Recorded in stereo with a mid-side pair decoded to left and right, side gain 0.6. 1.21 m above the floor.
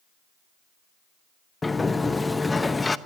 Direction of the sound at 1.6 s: 15° left.